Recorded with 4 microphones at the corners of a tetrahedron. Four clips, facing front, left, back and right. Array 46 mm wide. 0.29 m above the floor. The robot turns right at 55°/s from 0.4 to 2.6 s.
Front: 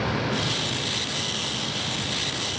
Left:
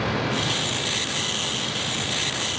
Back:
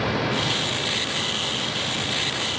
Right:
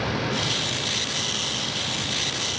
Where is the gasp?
I don't hear a gasp.